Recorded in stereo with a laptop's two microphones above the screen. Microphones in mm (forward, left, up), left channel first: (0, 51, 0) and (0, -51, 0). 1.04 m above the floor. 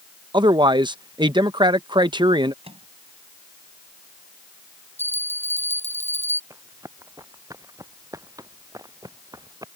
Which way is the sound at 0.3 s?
50° right (ahead or behind).